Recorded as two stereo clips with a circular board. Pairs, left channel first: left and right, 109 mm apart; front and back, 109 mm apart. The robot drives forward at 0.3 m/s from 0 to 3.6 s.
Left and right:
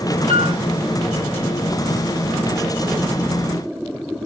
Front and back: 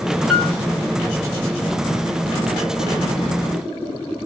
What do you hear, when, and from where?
0.3 s a piano: 95° right, 1.8 m; by 0.6 s 100° right, 1.8 m